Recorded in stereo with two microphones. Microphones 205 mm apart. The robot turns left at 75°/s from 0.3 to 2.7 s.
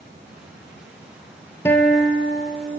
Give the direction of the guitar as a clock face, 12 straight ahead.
12 o'clock.